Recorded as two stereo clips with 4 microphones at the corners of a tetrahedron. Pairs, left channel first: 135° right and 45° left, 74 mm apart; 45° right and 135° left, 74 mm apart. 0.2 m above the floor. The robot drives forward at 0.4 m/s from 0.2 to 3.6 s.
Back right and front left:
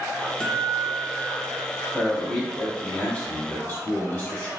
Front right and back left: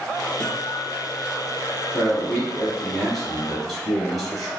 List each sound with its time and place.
0.4 s a guitar: 75° right, 1.0 m; by 2.3 s 155° right, 1.2 m
1.9 s a man speaking: 75° right, 1.4 m; by 4.5 s 140° right, 1.5 m